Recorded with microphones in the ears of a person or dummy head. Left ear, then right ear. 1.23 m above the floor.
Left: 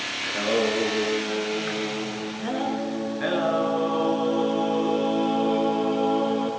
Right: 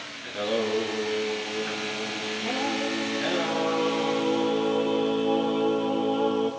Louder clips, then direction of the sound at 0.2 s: Left 3 dB; 10° left (ahead or behind).